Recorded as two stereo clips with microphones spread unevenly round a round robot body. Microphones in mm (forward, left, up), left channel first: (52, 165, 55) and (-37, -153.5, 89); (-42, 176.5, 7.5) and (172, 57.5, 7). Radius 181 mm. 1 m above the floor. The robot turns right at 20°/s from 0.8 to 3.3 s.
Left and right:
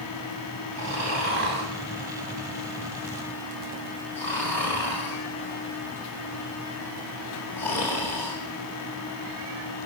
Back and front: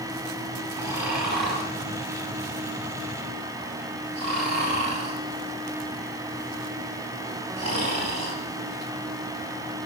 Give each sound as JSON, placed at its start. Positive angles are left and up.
{"t": 0.8, "sound": "snoring", "azimuth_deg": -60, "distance_m": 4.0}